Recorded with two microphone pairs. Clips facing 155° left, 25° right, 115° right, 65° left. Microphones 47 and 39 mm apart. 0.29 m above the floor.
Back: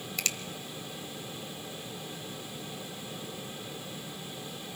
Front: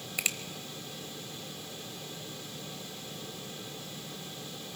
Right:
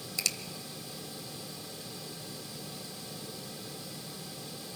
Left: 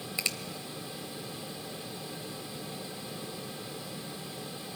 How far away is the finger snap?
About 0.9 m.